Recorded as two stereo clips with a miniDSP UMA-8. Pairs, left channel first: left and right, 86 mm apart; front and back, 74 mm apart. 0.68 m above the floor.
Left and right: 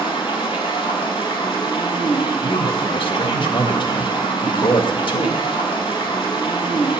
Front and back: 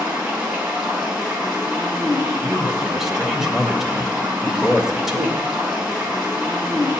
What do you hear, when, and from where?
0.0 s running water: 115° left, 5 m
2.4 s a man speaking: 95° left, 2.5 m